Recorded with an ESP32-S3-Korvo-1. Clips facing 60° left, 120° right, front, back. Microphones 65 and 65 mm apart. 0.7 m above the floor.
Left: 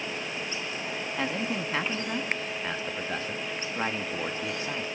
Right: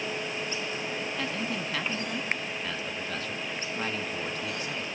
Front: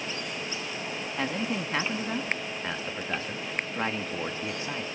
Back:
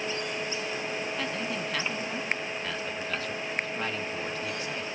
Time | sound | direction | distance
1.2 | a man speaking | 30° left | 1.2 m